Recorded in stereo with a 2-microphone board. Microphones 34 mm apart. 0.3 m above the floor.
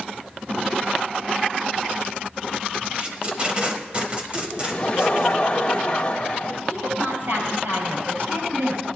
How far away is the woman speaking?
About 6 m.